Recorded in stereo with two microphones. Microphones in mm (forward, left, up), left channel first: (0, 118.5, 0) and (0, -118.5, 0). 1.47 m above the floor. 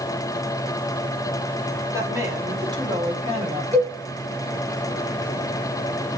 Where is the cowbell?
30° right (ahead or behind), 2.5 m.